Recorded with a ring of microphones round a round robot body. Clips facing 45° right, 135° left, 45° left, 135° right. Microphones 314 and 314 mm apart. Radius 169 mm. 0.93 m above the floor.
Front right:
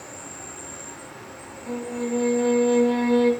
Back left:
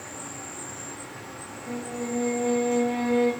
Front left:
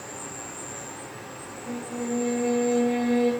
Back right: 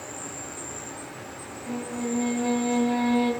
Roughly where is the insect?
Behind left.